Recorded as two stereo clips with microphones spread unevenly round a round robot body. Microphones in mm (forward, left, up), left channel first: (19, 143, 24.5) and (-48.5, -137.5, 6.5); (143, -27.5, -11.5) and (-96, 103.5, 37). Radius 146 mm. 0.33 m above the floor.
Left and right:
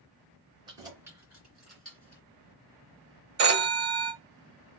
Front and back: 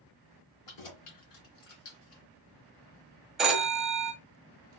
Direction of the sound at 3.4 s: 115° right.